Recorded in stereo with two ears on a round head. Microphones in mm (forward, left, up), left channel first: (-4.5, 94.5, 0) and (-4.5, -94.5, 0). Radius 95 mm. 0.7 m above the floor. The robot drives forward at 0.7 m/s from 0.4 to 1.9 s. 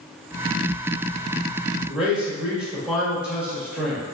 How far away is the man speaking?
About 0.9 m.